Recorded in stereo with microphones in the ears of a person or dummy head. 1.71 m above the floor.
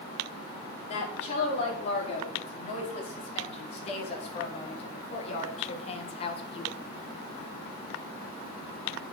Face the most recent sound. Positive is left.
turn(degrees=35)  # may be behind; listen again after turning